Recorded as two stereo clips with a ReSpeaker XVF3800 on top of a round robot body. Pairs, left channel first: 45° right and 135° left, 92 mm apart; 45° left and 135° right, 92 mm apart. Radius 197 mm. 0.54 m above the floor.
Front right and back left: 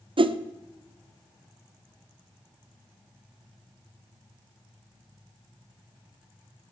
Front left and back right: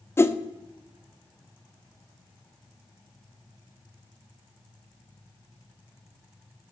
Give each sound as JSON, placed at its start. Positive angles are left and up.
{"t": 0.2, "sound": "a whoosh", "azimuth_deg": 110, "distance_m": 0.8}